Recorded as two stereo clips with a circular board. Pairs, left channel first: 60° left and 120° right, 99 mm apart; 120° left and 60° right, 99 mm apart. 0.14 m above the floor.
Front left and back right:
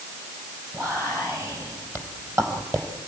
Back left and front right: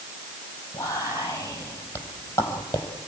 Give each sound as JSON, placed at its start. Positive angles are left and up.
{"t": 0.7, "sound": "whispering", "azimuth_deg": 180, "distance_m": 4.0}